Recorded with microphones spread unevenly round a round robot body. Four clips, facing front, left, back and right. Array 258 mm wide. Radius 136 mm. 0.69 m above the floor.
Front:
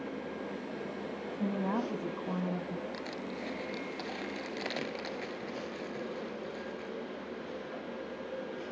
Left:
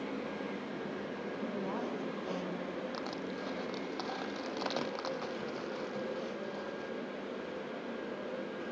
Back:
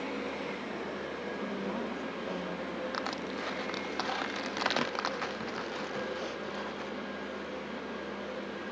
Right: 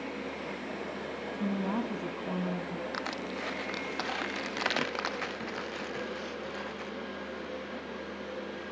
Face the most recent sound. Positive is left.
turn(degrees=-135)